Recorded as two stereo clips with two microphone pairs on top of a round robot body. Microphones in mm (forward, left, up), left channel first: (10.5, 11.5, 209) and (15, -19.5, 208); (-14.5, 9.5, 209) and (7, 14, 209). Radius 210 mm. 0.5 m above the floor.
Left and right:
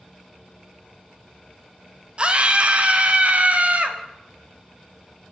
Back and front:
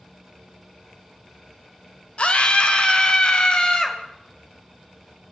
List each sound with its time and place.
2.2 s a scream: 135° right, 3 m; by 4.0 s 120° right, 4.5 m